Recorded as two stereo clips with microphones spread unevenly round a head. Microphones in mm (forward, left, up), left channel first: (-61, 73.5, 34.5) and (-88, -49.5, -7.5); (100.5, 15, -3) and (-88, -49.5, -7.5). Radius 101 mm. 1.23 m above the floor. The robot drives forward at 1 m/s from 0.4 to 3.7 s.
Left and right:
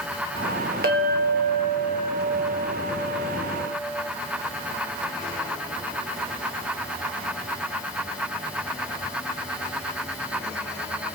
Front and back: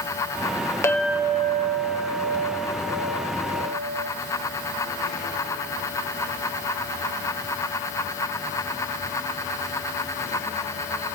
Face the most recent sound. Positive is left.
turn(degrees=-165)